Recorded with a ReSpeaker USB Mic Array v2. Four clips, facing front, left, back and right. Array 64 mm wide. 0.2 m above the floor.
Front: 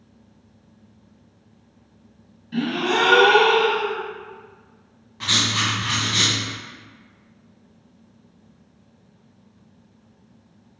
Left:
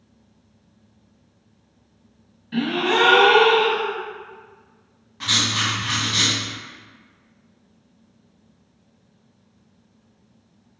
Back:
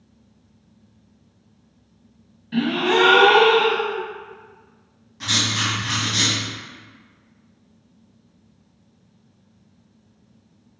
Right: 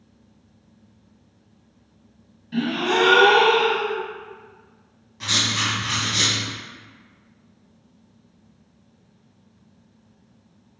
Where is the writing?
30° left, 1.7 m.